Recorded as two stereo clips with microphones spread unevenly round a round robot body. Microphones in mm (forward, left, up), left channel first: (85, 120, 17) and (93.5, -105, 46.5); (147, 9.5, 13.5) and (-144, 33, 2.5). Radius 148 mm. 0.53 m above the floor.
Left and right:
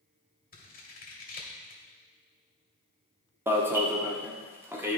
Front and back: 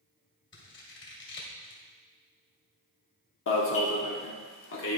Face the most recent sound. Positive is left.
turn(degrees=-5)